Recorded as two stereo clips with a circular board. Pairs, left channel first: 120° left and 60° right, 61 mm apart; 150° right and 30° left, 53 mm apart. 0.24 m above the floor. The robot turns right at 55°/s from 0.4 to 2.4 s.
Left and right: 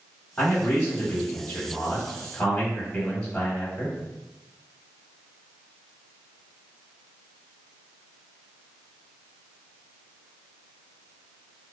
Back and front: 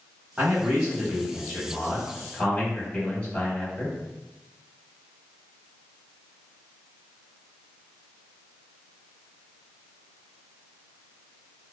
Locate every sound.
0.4 s a man speaking: 70° left, 1.0 m; by 4.0 s straight behind, 1.0 m